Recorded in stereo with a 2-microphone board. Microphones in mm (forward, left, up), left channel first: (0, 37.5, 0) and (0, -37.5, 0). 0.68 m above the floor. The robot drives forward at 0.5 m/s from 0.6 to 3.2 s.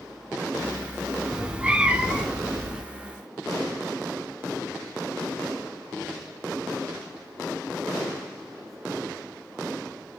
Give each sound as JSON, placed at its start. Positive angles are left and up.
{"t": 1.3, "sound": "a cat meowing", "side_deg": -15, "distance_m": 0.6}